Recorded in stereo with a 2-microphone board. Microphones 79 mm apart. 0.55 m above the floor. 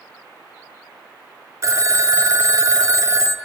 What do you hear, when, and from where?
1.6 s a phone ringing: 40° right (ahead or behind), 1.0 m